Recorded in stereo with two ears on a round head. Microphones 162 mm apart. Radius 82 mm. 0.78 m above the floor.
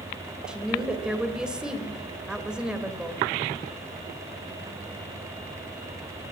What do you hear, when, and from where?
0.5 s a woman speaking: 5° right (ahead or behind), 3 m